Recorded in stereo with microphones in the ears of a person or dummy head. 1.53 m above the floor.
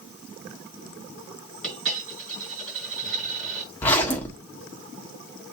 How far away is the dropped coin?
About 5 m.